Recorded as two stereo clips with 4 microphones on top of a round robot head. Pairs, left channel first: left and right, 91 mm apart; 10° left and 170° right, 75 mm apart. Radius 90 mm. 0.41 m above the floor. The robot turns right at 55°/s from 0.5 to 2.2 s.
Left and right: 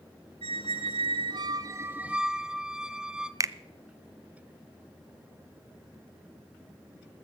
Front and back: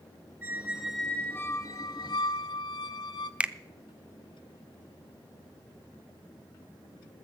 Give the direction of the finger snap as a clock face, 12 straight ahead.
3 o'clock.